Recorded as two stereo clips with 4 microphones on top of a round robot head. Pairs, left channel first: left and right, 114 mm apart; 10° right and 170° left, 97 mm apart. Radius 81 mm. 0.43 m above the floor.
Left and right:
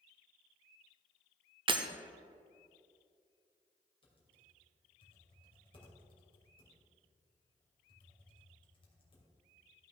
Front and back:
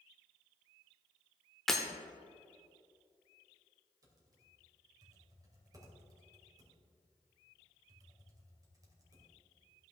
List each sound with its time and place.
1.7 s breaking glass: 95° right, 0.7 m
4.0 s typing on a keyboard: 125° left, 2.5 m